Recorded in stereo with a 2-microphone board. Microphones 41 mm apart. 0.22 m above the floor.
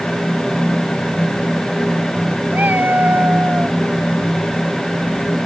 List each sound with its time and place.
2.5 s a cat meowing: 50° right (ahead or behind); by 3.8 s 40° right (ahead or behind)